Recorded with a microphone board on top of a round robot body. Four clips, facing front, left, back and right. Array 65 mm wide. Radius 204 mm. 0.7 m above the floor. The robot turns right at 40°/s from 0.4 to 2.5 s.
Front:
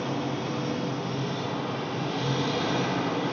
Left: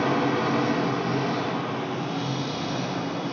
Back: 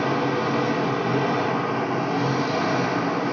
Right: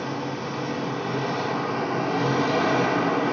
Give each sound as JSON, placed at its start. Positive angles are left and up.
{"t": 0.0, "sound": "an engine running", "azimuth_deg": 140, "distance_m": 2.5}